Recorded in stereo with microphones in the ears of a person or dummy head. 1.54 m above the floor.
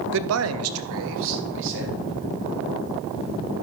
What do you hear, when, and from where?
0.1 s a man speaking: 55° right (ahead or behind), 0.6 m; by 2.1 s 65° right (ahead or behind), 2.5 m